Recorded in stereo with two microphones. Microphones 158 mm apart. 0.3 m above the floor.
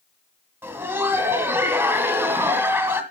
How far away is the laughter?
About 1.9 m.